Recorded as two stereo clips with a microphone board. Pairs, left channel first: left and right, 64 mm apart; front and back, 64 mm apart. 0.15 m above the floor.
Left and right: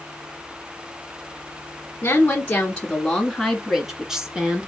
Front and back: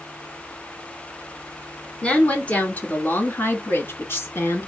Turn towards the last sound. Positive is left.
turn(degrees=-25)